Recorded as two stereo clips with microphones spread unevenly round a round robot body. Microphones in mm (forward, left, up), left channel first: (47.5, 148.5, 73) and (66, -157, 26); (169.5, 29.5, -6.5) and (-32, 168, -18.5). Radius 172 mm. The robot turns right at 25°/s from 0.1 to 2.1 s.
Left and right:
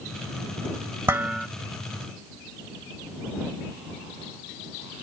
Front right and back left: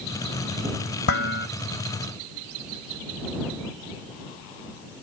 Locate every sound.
1.1 s dishes clattering: 5° right; by 1.5 s 5° left